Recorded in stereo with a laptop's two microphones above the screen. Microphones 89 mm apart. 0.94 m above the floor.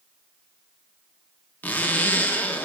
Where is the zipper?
20° left (ahead or behind), 0.5 m.